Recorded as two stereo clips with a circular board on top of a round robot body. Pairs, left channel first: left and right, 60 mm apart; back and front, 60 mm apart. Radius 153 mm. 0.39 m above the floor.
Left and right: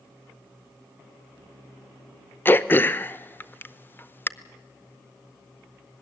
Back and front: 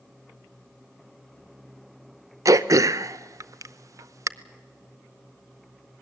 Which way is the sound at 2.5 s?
30° left.